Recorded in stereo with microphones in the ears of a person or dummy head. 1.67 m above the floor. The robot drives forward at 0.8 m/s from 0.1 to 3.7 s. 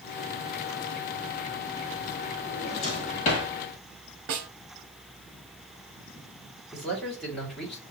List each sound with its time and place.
2.5 s a drawer: 25° left (ahead or behind), 1.4 m; by 3.5 s 35° left (ahead or behind), 1.1 m
4.3 s a snare drum: 55° right (ahead or behind), 0.8 m
6.7 s a man speaking: centre (ahead or behind), 1.9 m